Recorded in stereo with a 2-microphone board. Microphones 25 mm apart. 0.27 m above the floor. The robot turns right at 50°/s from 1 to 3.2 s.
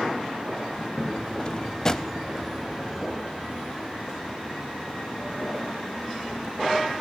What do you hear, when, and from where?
1.4 s a drawer: 40° left (ahead or behind), 0.6 m; by 2.1 s 15° left (ahead or behind), 0.6 m